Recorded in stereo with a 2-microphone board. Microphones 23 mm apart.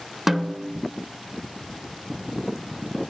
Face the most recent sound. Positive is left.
turn(degrees=-10)  # may be behind; listen again after turning